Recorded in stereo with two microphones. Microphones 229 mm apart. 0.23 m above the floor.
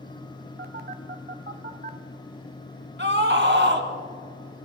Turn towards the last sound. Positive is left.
turn(degrees=-55)  # may be behind; listen again after turning